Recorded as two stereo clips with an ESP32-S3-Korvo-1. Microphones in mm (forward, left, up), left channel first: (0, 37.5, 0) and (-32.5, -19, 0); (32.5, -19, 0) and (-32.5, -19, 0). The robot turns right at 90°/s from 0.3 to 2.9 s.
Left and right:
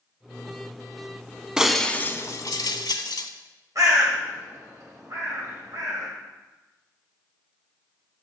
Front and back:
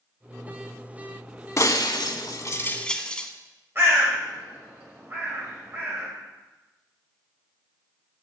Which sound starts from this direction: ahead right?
Breaking glass, at 1.6 s.